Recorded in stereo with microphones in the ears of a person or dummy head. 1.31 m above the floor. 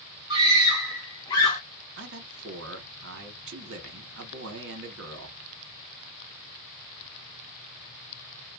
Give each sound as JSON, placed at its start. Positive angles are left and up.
{"t": 0.3, "sound": "a scream", "side_deg": -25, "distance_m": 0.8}
{"t": 2.0, "sound": "a man speaking", "side_deg": -65, "distance_m": 1.1}